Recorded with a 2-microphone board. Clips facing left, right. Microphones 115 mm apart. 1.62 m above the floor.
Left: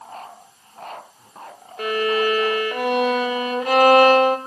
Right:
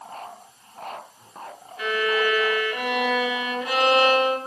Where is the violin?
55° left (ahead or behind), 1.1 m.